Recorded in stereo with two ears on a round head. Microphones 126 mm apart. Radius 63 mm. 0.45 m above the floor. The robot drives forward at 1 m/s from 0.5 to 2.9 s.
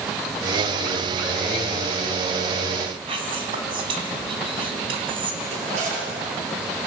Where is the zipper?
60° right (ahead or behind), 8.5 m.